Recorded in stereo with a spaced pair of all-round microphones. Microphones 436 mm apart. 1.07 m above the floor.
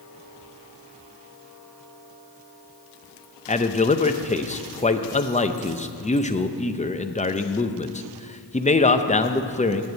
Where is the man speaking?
15° left (ahead or behind), 0.5 m.